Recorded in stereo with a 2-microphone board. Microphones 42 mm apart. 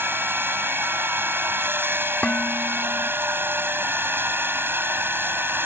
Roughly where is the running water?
Right.